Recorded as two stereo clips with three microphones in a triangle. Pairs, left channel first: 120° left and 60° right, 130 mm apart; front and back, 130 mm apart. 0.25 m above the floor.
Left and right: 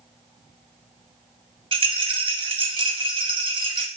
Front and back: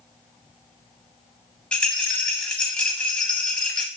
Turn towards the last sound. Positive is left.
turn(degrees=-80)